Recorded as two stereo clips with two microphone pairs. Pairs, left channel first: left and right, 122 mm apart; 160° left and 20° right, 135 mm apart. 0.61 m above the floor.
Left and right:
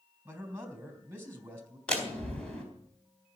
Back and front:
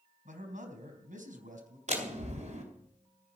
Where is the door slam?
5° left, 4 m.